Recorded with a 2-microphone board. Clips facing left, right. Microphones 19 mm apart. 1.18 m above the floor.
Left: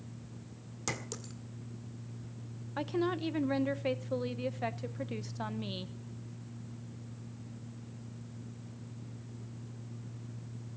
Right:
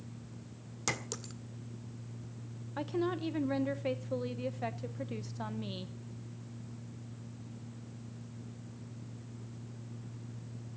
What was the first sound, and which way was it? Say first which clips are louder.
A clink: right 2 dB; 20° right (ahead or behind).